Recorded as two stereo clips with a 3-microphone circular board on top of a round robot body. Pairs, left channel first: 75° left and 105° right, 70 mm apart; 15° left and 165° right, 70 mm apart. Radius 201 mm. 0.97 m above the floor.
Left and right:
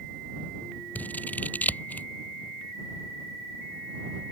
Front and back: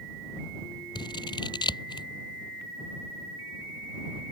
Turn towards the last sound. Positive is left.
turn(degrees=10)